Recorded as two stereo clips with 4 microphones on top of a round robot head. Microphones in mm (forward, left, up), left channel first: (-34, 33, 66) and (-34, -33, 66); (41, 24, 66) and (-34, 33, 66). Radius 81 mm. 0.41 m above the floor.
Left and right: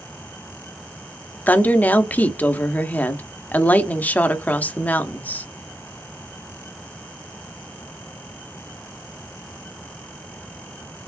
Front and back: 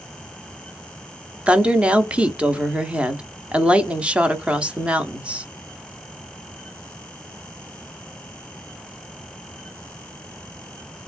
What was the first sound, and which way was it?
A woman speaking, 115° left.